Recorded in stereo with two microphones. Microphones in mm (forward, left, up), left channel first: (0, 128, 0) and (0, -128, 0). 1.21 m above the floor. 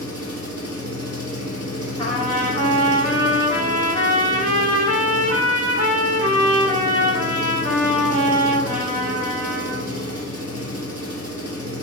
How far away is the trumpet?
About 2.5 m.